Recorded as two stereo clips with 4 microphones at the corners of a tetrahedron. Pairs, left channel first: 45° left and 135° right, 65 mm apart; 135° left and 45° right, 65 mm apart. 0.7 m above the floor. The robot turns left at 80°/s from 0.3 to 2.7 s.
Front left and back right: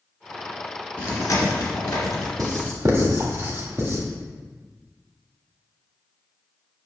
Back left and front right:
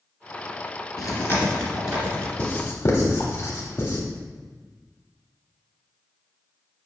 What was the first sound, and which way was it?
Chewing, 105° left.